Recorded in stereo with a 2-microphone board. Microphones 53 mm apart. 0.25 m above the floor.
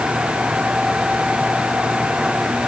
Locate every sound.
Only background noise.